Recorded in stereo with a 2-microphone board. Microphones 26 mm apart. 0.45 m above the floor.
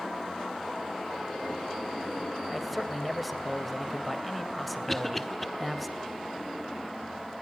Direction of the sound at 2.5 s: 5° left (ahead or behind).